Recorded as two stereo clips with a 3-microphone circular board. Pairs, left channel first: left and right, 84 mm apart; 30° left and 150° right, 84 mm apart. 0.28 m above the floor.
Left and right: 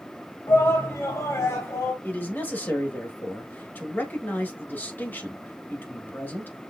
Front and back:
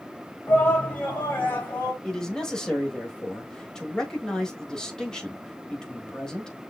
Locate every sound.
0.5 s a shout: 85° left, 1.8 m
2.0 s a man speaking: 100° left, 1.4 m